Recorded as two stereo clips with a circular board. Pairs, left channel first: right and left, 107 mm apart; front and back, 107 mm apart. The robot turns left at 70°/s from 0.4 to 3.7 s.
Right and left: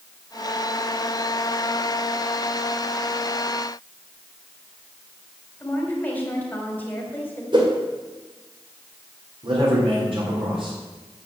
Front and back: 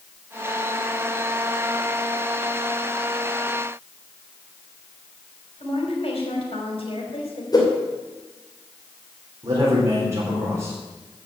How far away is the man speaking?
About 4 m.